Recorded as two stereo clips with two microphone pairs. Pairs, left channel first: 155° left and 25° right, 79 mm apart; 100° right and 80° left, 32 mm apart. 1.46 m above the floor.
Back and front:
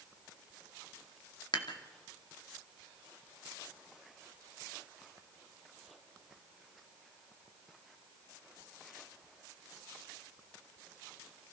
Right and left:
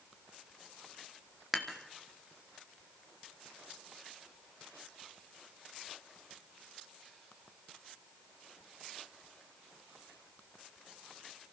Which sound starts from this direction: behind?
Dishes clattering, at 1.5 s.